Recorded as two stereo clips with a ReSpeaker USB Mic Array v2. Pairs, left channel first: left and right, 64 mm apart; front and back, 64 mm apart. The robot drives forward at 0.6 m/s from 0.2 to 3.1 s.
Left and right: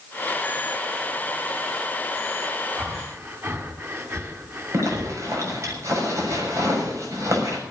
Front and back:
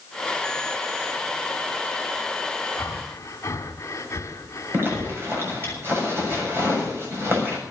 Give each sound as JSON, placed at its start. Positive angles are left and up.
{"t": 2.8, "sound": "breathing", "azimuth_deg": -40, "distance_m": 2.5}
{"t": 4.7, "sound": "a zipper", "azimuth_deg": -130, "distance_m": 6.5}